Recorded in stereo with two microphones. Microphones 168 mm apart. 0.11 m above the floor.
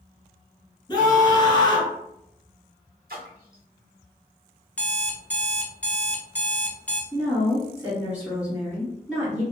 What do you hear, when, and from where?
0.9 s a scream: 25° left (ahead or behind), 1.3 m
3.1 s a splash: 65° right (ahead or behind), 1.3 m
4.8 s an alarm clock: 10° left (ahead or behind), 0.5 m
7.1 s a woman speaking: 5° right (ahead or behind), 1.7 m